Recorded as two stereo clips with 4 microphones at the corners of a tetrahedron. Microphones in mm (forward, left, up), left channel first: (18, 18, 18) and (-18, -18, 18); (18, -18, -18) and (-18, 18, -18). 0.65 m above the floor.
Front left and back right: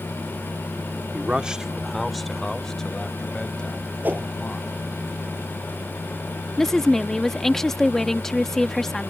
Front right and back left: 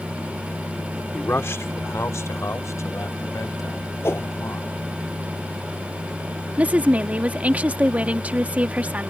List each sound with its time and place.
1.1 s a man speaking: 80° right; by 4.7 s 25° right
4.0 s a whoosh: 80° right
6.6 s a woman speaking: 120° left